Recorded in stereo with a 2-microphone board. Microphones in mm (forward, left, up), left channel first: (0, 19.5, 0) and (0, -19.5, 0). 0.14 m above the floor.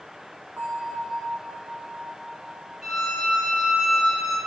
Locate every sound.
0.6 s a bell: 50° right (ahead or behind), 4.5 m
2.8 s a violin: 10° right (ahead or behind), 2 m